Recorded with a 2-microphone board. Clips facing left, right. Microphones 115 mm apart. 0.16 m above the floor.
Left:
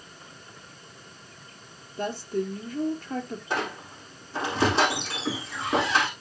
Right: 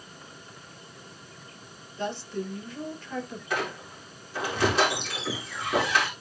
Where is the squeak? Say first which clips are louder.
Even; 30° left (ahead or behind), 5 m.